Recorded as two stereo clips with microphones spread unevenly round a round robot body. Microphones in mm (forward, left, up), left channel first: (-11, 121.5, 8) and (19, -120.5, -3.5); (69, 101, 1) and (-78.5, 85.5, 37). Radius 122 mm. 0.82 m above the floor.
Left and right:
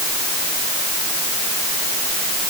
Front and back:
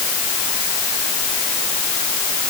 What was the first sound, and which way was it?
Only background noise.